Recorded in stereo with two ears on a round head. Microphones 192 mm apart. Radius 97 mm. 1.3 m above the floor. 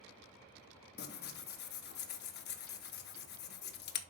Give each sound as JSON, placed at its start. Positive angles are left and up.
{"t": 1.0, "sound": "tearing paper", "side_deg": 50, "distance_m": 0.9}